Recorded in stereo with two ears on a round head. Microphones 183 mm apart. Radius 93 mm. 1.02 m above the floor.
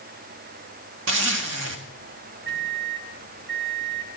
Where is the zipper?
65° right (ahead or behind), 2 m.